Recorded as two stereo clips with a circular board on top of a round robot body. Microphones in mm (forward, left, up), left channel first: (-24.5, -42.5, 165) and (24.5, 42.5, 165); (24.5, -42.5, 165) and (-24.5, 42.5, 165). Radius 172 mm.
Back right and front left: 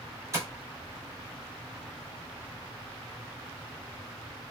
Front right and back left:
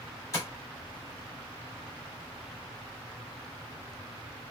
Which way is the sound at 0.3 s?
Straight ahead.